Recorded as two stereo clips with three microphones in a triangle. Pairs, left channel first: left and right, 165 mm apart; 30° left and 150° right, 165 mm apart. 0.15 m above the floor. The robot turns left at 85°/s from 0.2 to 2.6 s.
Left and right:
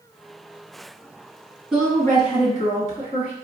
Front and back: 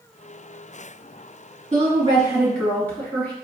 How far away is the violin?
I don't hear a violin.